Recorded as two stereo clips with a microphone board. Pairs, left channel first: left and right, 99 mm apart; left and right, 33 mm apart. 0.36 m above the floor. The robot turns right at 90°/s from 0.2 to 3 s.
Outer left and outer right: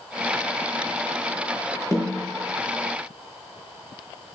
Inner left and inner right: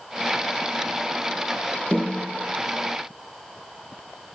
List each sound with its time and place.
1.9 s a snare drum: 145° left, 6 m; by 2.2 s 175° left, 6 m